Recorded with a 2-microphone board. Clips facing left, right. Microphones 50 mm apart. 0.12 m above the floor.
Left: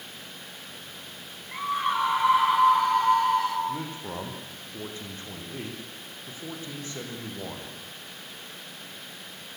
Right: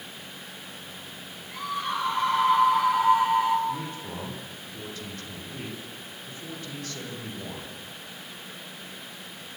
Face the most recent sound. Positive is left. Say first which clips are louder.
# right 1 dB
turn(degrees=20)  # may be behind; listen again after turning